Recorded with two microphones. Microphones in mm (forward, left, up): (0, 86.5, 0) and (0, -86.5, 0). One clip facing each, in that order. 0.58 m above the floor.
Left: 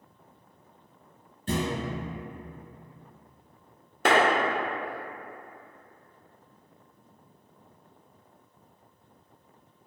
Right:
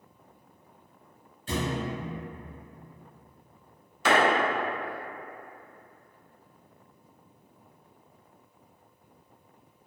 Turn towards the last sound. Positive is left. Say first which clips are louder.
# left 1 dB
turn(degrees=55)  # may be behind; listen again after turning